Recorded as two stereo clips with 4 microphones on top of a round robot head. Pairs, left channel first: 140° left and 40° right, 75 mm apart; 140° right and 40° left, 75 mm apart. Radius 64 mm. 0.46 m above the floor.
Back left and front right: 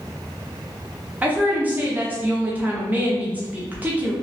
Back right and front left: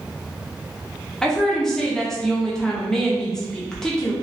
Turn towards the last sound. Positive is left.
turn(degrees=-70)